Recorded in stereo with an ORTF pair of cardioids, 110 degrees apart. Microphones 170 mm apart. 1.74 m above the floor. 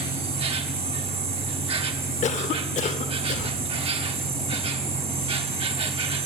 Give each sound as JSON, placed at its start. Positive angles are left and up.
{"t": 0.0, "sound": "an insect", "azimuth_deg": -35, "distance_m": 1.1}
{"t": 2.2, "sound": "a cough", "azimuth_deg": 45, "distance_m": 1.4}